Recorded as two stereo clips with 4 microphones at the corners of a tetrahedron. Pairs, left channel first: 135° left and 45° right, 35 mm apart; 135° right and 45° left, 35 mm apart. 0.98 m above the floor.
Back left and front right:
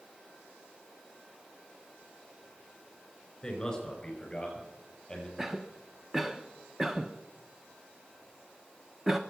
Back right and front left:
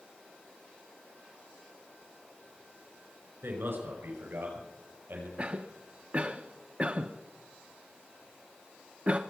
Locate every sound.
3.4 s a man speaking: 60° left, 5.5 m
5.4 s a cough: 25° left, 0.7 m